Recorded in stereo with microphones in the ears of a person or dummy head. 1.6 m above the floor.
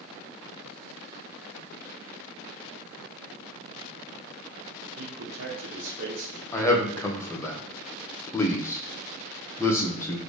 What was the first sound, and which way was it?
A man speaking, 70° right (ahead or behind).